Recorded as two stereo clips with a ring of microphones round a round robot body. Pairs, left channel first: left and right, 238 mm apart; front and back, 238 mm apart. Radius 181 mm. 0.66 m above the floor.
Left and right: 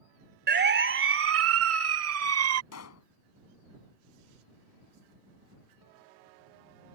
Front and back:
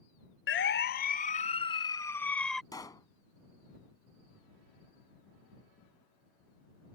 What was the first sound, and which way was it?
A siren, 45° right.